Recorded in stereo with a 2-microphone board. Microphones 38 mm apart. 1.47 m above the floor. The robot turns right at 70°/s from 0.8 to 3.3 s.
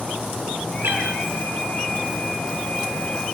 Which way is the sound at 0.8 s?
70° right (ahead or behind).